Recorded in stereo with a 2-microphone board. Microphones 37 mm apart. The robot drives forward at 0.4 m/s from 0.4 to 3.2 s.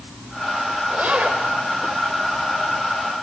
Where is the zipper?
35° right (ahead or behind), 4 m; by 1.4 s 40° right (ahead or behind), 4 m.